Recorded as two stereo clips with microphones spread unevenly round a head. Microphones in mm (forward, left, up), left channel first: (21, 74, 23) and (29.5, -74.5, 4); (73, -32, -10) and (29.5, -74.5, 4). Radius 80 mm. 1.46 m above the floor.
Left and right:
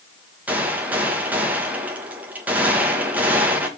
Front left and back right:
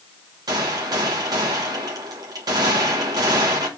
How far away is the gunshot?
About 1.2 m.